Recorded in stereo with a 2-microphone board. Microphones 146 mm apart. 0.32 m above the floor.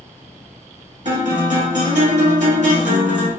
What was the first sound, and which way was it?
A guitar, 55° right (ahead or behind).